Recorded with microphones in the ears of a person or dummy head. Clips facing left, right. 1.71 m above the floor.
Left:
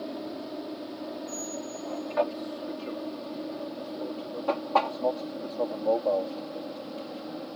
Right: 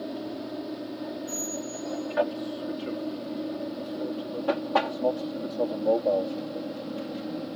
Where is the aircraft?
10° right (ahead or behind); by 7.6 s 20° right (ahead or behind).